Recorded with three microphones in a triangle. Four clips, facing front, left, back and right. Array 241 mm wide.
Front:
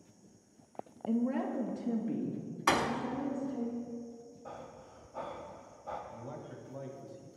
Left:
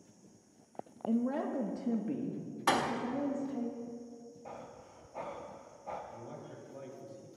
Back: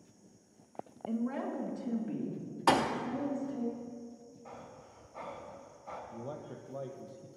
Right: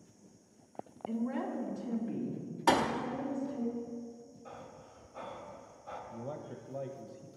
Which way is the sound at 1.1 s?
60° left.